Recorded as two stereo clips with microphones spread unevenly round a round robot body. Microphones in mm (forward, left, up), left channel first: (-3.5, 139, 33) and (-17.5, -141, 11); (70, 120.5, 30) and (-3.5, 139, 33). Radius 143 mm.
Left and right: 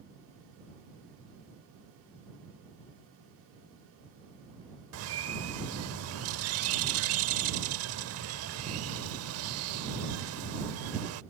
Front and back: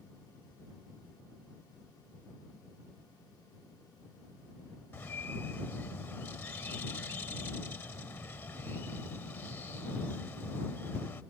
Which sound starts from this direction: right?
A bird, at 4.9 s.